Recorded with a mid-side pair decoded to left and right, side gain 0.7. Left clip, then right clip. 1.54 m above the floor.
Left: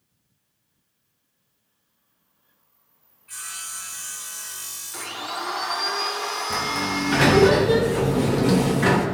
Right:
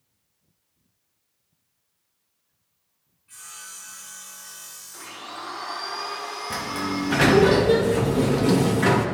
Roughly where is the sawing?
Ahead left.